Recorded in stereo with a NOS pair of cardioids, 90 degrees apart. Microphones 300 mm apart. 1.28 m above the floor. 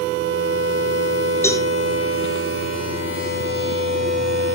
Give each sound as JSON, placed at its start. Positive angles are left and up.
{"t": 1.4, "sound": "a cowbell", "azimuth_deg": 10, "distance_m": 3.5}